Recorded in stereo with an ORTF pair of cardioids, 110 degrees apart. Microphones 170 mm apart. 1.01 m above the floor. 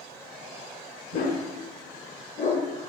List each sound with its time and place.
1.1 s a dog barking: 50° left, 1.3 m